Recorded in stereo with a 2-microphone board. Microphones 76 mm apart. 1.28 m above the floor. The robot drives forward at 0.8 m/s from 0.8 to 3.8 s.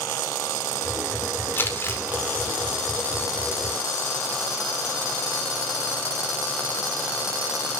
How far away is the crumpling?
About 4 m.